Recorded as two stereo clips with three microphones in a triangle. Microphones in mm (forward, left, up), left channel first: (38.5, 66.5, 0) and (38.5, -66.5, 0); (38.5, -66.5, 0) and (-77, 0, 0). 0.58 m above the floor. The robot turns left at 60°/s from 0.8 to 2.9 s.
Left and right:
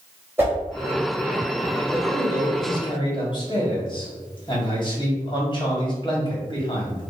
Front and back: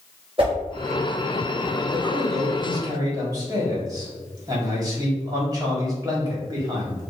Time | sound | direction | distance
0.4 | a whoosh | 165° right | 1.6 m
1.9 | a man speaking | 165° left | 1.5 m